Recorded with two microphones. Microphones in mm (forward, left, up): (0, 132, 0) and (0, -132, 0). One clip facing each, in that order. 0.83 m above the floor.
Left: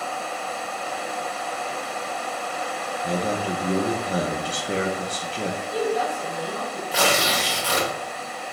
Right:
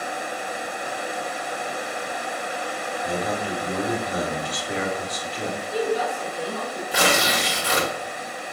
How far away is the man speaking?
About 0.8 m.